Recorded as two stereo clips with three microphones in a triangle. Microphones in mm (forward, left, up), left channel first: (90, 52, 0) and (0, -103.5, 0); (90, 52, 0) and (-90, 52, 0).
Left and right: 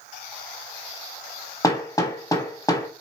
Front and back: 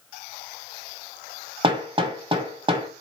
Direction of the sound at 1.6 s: 125° left.